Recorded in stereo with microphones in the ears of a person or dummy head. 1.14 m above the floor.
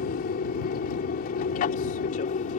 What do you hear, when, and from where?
0.0 s an aircraft: 50° left (ahead or behind); by 2.6 s 40° left (ahead or behind)